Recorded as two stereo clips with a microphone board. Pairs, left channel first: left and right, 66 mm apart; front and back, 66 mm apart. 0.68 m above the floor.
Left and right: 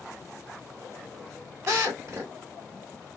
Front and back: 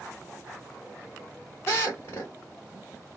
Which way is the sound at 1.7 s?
45° right.